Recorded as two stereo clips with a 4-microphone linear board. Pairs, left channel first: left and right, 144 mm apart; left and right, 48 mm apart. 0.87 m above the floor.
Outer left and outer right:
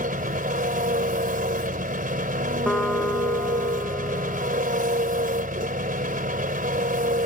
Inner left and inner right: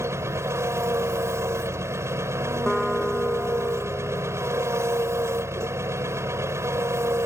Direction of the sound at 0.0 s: 80° right.